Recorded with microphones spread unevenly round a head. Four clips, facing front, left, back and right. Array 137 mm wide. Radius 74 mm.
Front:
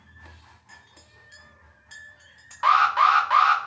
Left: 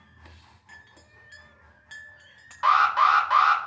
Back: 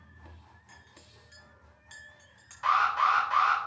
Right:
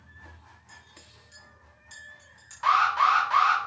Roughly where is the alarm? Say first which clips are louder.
Left 2 dB, front 7 dB; ahead.